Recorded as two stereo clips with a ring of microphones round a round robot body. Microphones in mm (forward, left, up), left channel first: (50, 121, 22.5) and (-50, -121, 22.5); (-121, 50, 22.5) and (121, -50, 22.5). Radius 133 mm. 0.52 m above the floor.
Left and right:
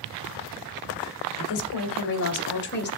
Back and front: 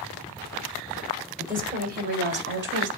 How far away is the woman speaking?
About 2.5 m.